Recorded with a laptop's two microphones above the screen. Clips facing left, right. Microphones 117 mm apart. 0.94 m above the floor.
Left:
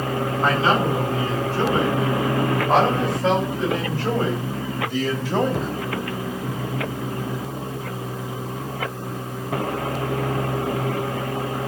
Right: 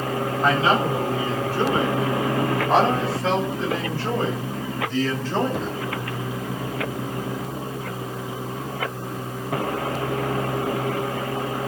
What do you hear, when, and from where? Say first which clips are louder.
0.4 s a man speaking: even; 25° left (ahead or behind), 8 m; by 5.8 s 5° left (ahead or behind), 3.5 m